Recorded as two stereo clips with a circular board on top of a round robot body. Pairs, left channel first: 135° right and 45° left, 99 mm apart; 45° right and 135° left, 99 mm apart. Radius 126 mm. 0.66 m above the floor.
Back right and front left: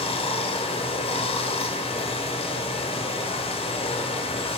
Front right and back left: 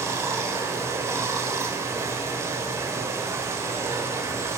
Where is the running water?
160° right, 1.0 m.